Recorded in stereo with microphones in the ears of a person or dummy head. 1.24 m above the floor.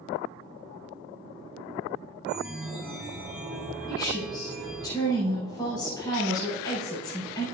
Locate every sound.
2.2 s a chime: 5° right (ahead or behind), 3.5 m
3.9 s a woman speaking: 20° left (ahead or behind), 4 m